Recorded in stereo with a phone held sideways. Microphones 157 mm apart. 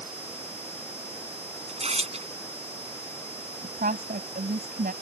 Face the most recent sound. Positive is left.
turn(degrees=-70)  # may be behind; listen again after turning